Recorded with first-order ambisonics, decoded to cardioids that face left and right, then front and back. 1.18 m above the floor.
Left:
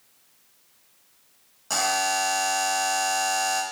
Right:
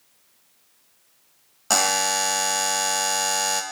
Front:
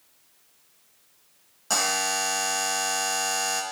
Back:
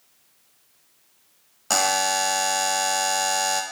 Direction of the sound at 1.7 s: 120° right.